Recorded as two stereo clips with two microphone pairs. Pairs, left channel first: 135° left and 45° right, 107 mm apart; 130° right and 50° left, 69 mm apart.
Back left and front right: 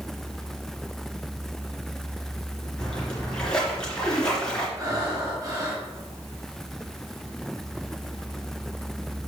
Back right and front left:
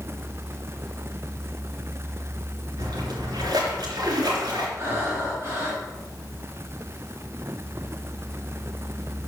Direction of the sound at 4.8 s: 5° left.